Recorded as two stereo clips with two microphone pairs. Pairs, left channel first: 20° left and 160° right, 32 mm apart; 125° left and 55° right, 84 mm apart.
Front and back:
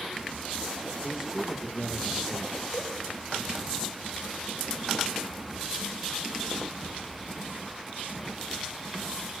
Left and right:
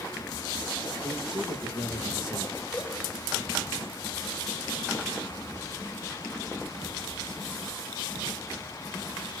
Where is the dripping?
45° left, 9 m.